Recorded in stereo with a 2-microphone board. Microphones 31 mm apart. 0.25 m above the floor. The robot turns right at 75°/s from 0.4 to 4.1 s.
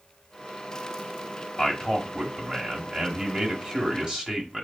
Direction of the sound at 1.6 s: 30° left (ahead or behind).